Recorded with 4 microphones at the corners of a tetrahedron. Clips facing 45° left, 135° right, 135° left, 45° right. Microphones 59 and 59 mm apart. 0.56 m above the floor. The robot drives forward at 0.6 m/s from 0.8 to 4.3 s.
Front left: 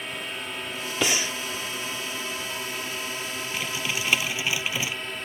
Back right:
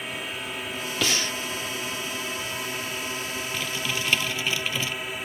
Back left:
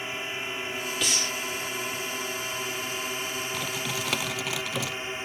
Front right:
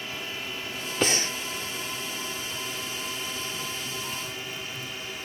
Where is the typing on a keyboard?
120° left.